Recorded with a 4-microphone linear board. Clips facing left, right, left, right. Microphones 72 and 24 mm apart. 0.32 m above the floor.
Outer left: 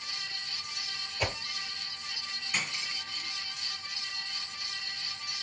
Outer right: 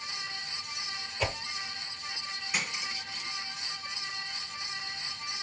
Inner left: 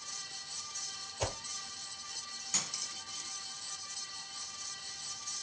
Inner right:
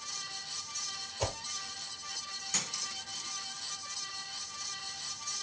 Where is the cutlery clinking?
5° right (ahead or behind), 1.7 m.